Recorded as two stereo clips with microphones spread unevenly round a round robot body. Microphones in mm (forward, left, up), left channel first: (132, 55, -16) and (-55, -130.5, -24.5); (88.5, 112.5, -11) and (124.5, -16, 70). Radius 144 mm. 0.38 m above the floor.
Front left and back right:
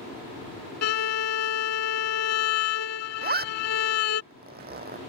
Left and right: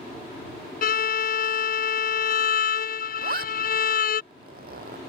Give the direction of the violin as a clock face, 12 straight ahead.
9 o'clock.